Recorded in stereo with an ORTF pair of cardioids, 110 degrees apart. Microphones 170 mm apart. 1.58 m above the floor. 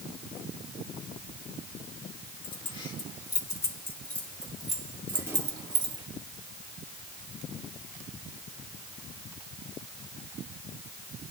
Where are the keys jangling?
35° left, 2 m; by 6.0 s 35° right, 1.6 m.